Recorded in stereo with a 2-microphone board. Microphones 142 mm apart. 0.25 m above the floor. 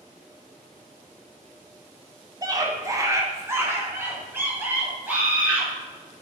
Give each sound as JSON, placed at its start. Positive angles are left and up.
{"t": 2.4, "sound": "a scream", "side_deg": -25, "distance_m": 1.3}